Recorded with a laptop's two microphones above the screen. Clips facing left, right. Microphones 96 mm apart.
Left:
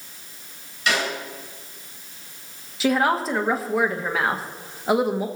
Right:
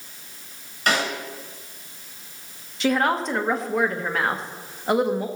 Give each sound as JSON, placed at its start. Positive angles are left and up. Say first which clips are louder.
{"t": 0.9, "sound": "a snare drum", "louder": "right 1 dB", "side_deg": -50, "distance_m": 6.5}
{"t": 2.8, "sound": "a woman speaking", "louder": "left 1 dB", "side_deg": 5, "distance_m": 1.6}